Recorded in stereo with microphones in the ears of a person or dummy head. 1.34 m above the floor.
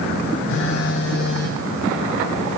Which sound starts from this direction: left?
A phone buzzing, at 0.5 s.